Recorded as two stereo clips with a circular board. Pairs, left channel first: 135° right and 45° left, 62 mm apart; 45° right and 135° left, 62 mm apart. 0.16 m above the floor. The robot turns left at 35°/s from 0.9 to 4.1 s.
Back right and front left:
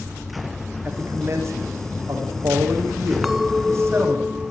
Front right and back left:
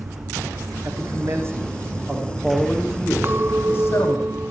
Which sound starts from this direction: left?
A man speaking, at 0.8 s.